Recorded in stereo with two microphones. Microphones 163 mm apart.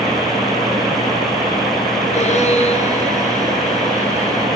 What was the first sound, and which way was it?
A violin, 45° left (ahead or behind).